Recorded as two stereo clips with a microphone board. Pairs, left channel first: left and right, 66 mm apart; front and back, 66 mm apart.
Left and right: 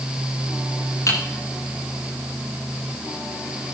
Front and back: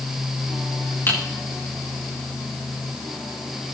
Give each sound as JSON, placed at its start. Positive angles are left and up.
{"t": 1.1, "sound": "typing on a keyboard", "azimuth_deg": 50, "distance_m": 8.0}